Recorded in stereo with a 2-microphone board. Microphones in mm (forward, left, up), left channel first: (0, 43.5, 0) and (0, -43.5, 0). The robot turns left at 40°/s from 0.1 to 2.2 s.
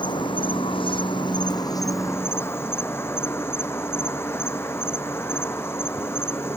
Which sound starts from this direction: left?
An insect, at 0.0 s.